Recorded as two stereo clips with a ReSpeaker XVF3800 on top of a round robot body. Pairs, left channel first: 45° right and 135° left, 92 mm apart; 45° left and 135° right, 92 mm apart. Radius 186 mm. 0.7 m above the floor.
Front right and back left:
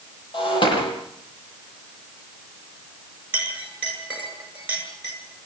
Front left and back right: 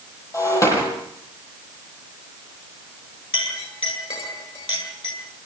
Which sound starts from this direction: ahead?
Breaking glass, at 0.3 s.